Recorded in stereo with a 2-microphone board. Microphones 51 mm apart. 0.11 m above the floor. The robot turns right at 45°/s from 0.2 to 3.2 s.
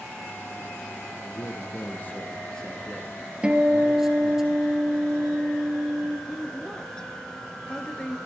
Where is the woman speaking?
15° left (ahead or behind), 1.4 m.